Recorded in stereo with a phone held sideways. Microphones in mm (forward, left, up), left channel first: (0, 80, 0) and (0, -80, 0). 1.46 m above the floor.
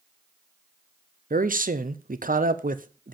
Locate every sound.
1.3 s a man speaking: 60° right (ahead or behind), 0.7 m